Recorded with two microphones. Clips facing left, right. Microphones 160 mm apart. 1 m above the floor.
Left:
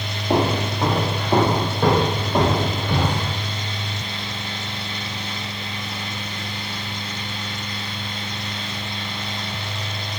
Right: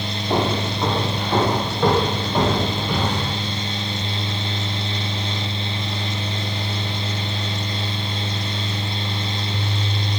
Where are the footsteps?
35° left (ahead or behind), 1.5 m; by 3.3 s 30° left (ahead or behind), 3 m.